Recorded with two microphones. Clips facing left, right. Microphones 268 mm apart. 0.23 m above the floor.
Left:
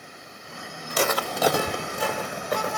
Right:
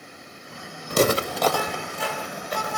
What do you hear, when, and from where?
0.9 s footsteps: 55° right (ahead or behind), 0.8 m; by 2.8 s 70° left (ahead or behind), 2 m